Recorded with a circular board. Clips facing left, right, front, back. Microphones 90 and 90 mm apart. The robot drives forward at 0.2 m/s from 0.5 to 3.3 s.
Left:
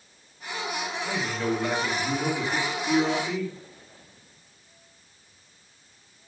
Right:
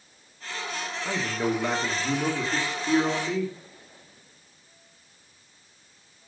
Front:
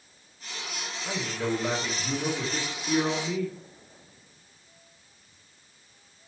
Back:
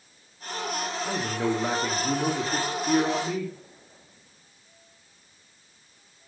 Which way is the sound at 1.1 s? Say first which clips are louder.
Right 2 dB, back 1 dB; 145° right.